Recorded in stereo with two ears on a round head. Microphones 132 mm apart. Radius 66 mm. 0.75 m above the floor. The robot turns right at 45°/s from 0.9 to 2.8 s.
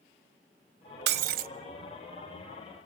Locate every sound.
1.1 s breaking glass: 80° right, 0.6 m; by 1.5 s 65° right (ahead or behind), 0.6 m